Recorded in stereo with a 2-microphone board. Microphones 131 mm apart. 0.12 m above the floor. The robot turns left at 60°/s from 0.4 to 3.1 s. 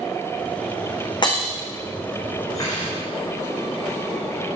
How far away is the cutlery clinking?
About 5 m.